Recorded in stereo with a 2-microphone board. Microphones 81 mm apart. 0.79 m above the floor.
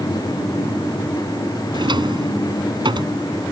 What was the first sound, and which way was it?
A drawer, 65° right (ahead or behind).